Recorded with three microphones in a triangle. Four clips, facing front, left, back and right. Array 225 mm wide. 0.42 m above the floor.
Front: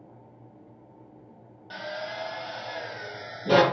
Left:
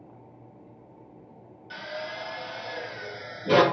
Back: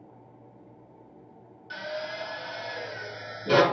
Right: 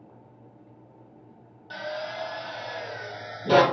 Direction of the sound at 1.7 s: 65° right.